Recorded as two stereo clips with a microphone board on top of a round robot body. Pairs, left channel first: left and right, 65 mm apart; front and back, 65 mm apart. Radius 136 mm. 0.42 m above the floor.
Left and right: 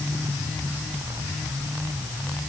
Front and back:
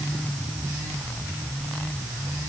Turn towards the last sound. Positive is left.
No sound to turn to.